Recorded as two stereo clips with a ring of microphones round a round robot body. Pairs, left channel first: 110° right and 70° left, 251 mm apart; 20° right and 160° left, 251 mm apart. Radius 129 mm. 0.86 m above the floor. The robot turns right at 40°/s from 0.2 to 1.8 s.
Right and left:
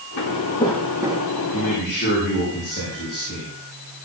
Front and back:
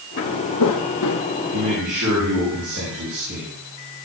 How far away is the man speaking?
About 6 m.